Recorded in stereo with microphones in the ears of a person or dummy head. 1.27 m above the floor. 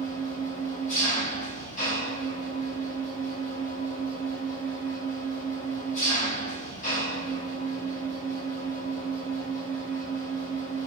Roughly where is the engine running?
Left.